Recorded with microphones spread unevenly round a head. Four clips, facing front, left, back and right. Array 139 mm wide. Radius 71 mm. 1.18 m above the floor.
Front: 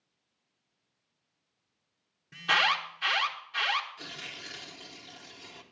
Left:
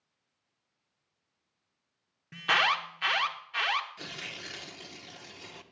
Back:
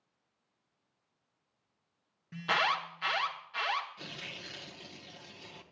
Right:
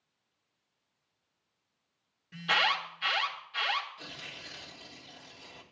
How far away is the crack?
No crack in this recording.